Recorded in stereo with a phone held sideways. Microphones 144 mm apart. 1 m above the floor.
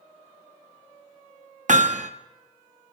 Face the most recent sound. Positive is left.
turn(degrees=-60)  # may be behind; listen again after turning